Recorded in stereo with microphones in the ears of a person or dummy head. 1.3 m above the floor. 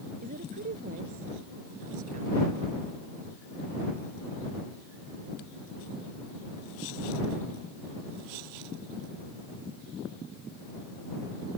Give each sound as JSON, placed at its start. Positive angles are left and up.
{"t": 0.2, "sound": "a woman speaking", "side_deg": -50}